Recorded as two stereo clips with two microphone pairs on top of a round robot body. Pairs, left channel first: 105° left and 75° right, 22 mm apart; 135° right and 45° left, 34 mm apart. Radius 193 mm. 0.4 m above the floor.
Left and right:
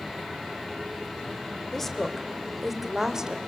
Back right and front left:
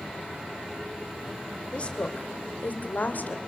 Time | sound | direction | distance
1.7 | a woman speaking | 175° left | 3 m